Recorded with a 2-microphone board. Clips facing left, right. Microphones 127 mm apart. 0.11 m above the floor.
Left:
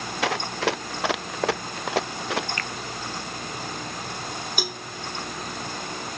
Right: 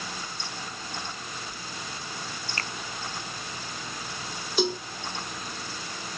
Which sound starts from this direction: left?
Running footsteps, at 0.2 s.